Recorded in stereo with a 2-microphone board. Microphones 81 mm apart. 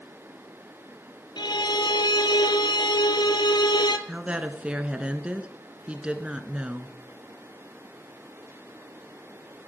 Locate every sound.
1.4 s a violin: 65° left (ahead or behind), 1.0 m
4.1 s a woman speaking: 15° right (ahead or behind), 1.1 m